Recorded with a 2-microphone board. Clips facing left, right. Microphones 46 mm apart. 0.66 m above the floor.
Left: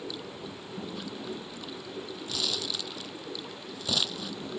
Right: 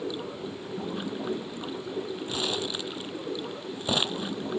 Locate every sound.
0.0 s running water: 30° right (ahead or behind)
2.3 s crumpling: 30° right (ahead or behind)